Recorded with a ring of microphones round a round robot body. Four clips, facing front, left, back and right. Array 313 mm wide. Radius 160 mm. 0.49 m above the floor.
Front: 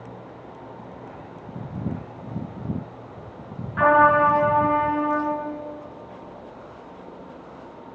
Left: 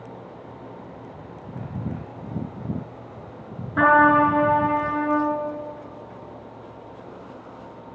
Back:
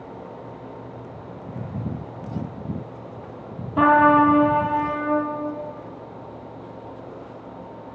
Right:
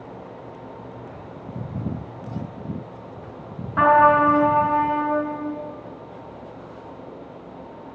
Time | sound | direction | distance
3.8 | a trumpet | 150° left | 7.5 m